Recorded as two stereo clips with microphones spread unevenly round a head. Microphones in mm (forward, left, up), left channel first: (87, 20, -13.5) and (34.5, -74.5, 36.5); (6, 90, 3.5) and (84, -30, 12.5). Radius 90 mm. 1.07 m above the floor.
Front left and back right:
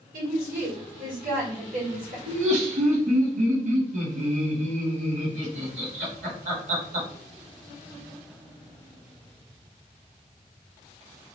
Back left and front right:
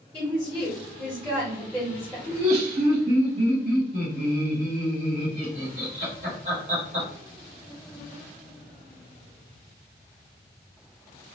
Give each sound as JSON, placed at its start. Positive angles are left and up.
{"t": 0.1, "sound": "a woman speaking", "azimuth_deg": -125, "distance_m": 1.6}
{"t": 2.3, "sound": "laughter", "azimuth_deg": -115, "distance_m": 1.7}